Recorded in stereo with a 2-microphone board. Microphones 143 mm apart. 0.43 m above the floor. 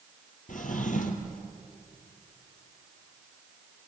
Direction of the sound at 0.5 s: 65° left (ahead or behind).